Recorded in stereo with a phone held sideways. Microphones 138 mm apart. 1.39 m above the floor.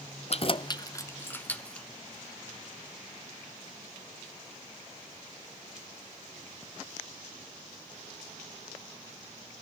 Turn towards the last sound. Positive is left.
turn(degrees=5)  # may be behind; listen again after turning